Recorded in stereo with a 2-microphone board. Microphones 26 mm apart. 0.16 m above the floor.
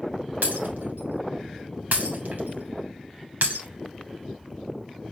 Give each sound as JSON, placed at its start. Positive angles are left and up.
{"t": 0.4, "sound": "breaking glass", "side_deg": -80, "distance_m": 3.0}